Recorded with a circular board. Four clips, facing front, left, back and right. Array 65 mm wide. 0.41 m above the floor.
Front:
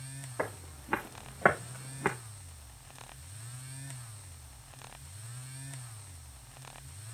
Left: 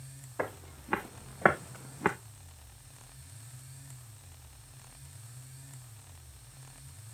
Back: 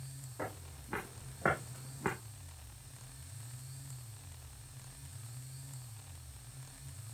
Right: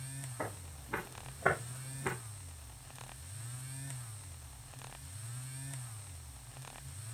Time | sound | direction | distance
0.4 | footsteps | 50° left | 2.0 m